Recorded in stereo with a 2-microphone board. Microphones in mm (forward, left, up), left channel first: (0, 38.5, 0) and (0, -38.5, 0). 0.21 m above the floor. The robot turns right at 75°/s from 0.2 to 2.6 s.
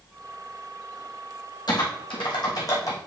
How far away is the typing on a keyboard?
About 2.5 m.